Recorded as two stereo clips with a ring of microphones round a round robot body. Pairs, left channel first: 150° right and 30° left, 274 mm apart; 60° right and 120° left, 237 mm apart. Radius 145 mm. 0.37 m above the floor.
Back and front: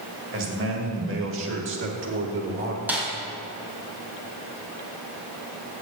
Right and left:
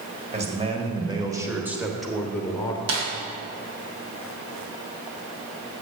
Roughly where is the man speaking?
Ahead left.